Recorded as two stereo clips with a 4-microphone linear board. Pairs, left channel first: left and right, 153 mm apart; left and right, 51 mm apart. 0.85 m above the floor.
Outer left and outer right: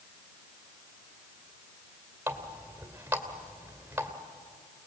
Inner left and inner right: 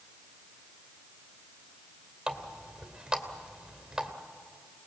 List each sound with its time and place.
2.3 s a running tap: 10° right (ahead or behind), 2.5 m